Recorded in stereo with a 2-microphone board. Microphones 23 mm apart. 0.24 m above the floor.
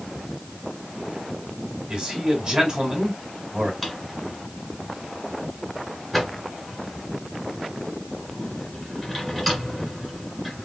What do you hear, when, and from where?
1.9 s a man speaking: 35° right (ahead or behind), 2.0 m
3.8 s a drawer: centre (ahead or behind), 2.0 m